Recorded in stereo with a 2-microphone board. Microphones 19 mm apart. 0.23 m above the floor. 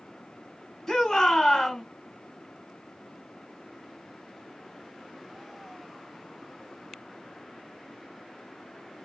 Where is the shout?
25° left (ahead or behind), 1.3 m.